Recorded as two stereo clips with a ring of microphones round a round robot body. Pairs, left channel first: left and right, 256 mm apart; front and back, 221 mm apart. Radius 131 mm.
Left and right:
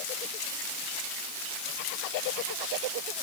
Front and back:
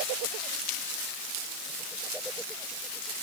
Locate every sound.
Only background noise.